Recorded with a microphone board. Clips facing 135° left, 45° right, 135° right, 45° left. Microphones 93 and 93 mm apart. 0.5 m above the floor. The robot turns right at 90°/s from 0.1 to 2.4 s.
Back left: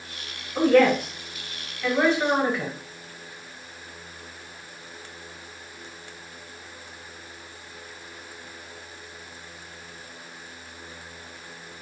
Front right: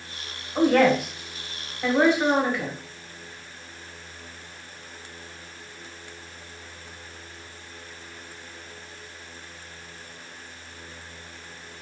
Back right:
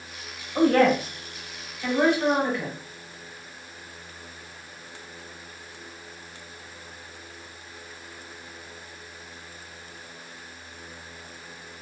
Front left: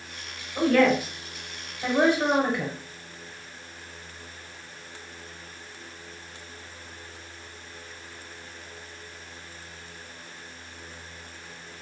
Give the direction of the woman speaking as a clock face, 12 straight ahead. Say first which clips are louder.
Back left 1 dB, back right 1 dB; 4 o'clock.